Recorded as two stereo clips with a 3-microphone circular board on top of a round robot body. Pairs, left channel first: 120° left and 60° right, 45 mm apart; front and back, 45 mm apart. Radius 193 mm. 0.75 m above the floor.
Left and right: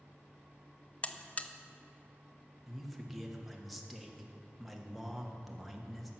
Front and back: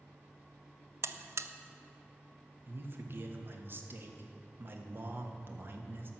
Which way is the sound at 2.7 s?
150° right.